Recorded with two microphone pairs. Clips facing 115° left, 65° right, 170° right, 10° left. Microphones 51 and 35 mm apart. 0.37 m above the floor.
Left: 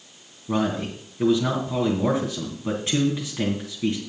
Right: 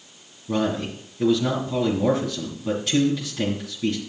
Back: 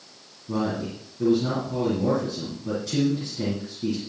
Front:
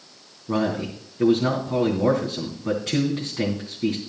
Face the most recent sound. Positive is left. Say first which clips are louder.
# even, front 3 dB
turn(degrees=50)